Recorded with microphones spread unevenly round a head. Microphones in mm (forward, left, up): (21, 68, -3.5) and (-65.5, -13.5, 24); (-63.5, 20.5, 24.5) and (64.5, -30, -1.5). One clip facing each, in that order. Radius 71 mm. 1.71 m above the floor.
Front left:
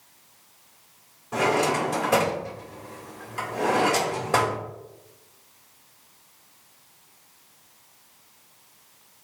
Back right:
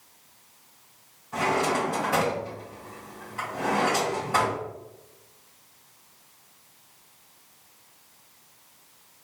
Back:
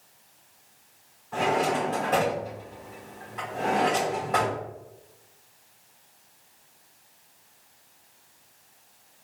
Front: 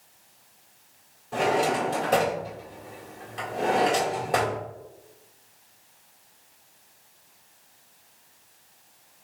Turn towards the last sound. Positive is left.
turn(degrees=35)